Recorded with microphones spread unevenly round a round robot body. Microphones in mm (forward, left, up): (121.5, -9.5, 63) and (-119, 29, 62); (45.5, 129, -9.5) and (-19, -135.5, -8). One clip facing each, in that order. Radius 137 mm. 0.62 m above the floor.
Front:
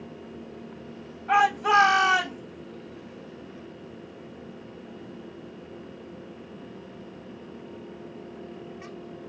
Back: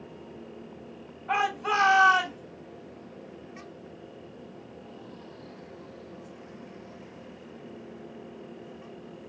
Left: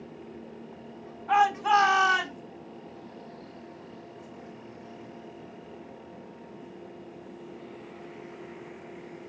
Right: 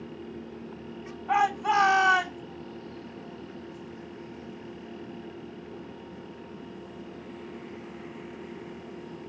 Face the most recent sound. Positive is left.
turn(degrees=15)